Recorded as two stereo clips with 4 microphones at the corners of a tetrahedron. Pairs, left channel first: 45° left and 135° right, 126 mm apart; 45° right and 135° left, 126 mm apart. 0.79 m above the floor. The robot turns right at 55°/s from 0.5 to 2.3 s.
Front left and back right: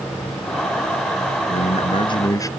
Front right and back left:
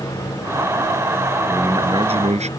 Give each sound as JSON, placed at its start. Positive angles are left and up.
{"t": 1.5, "sound": "a man speaking", "azimuth_deg": 65}